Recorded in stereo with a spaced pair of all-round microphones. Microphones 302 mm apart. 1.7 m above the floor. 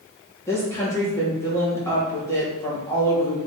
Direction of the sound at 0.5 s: 10° left (ahead or behind).